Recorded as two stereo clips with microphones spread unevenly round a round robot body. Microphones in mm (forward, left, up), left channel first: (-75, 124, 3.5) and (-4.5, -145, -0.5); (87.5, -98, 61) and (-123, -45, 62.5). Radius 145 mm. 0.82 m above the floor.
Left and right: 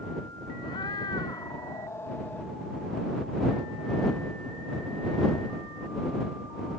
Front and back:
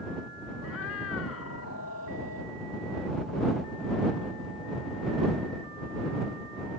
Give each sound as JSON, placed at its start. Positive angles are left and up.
{"t": 0.6, "sound": "a cat meowing", "azimuth_deg": 30}